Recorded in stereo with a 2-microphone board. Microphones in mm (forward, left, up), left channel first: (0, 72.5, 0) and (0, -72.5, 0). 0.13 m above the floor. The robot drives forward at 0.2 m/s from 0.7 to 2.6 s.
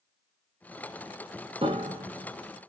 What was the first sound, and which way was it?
A piano, 40° right (ahead or behind).